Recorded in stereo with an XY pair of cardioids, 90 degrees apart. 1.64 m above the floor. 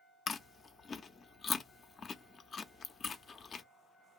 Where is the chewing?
50° left, 0.5 m.